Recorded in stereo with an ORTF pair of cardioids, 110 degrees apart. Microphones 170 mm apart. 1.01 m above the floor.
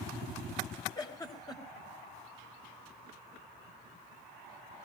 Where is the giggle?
25° left, 4 m.